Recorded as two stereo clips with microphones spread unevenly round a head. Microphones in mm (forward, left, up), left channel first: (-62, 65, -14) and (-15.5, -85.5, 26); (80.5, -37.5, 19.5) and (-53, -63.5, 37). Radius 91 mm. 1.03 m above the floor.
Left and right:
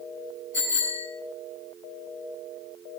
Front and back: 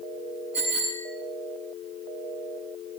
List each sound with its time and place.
0.5 s a bicycle bell: 110° left, 7 m